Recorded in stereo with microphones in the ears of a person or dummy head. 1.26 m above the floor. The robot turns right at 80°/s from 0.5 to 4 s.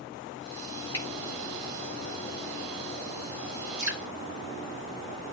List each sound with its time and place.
0.9 s a finger snap: 15° left (ahead or behind), 7.5 m; by 1.1 s 25° left (ahead or behind), 7.5 m
3.8 s dripping: 60° right (ahead or behind), 3.5 m; by 4.0 s 75° right (ahead or behind), 3.5 m